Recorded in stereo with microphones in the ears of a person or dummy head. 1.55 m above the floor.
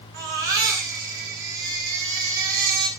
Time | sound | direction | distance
0.1 | a baby crying | 60° right (ahead or behind) | 4.5 m